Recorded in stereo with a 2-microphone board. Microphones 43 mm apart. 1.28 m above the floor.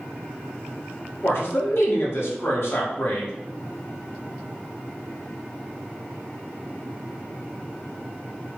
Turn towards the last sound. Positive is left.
turn(degrees=60)  # may be behind; listen again after turning